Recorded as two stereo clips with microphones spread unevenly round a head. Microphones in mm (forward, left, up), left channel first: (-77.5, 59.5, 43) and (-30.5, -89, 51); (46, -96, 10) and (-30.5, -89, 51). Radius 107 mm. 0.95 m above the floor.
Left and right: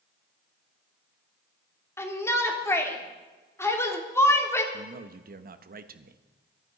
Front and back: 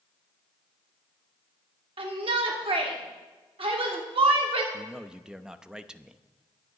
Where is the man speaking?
95° right, 1.1 m.